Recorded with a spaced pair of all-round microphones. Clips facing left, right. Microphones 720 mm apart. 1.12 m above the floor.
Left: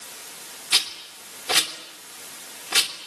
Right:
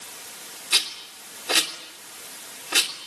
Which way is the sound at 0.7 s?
35° left (ahead or behind).